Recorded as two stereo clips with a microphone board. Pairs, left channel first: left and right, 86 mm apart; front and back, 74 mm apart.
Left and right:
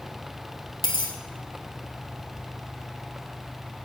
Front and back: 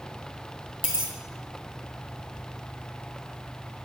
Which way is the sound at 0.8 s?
105° left.